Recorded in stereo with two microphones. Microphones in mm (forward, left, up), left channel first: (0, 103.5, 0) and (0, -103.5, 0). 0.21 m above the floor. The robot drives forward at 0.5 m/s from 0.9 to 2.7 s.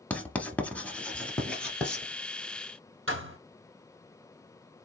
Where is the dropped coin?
I don't hear a dropped coin.